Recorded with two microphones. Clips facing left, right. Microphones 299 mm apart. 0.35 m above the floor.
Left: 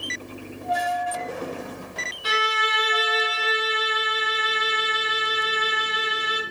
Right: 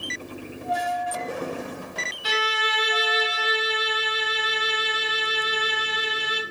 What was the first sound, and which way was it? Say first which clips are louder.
A violin: even; 55° left (ahead or behind).